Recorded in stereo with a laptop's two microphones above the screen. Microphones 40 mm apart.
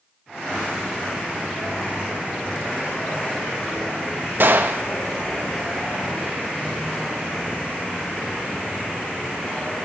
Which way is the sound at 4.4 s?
60° right (ahead or behind).